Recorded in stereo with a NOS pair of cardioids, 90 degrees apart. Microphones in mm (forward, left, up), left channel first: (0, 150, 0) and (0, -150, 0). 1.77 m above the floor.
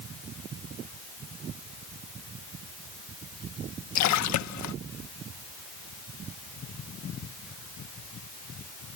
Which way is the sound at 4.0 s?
65° left.